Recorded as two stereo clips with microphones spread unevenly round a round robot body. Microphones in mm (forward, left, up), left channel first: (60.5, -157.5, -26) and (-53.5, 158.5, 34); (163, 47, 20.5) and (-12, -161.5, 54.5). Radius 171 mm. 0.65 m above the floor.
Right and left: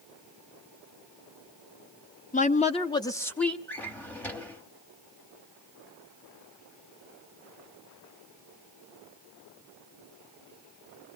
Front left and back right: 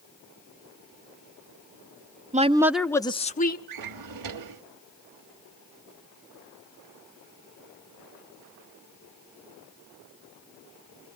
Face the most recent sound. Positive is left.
turn(degrees=-160)